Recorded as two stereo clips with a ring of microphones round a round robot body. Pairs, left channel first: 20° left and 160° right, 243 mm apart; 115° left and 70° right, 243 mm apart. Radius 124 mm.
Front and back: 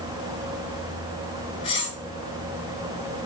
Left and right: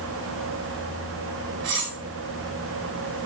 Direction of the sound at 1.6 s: 45° right.